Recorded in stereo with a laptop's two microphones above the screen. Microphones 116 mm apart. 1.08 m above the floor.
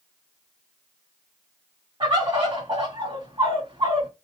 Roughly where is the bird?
Right.